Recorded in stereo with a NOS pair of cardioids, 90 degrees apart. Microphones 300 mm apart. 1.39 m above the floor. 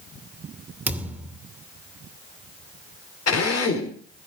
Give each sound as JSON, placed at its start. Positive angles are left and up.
{"t": 0.9, "sound": "a thud", "azimuth_deg": -5, "distance_m": 2.5}
{"t": 3.3, "sound": "a drill", "azimuth_deg": 55, "distance_m": 4.5}